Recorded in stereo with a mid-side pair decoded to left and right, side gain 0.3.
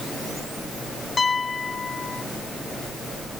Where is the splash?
I don't hear a splash.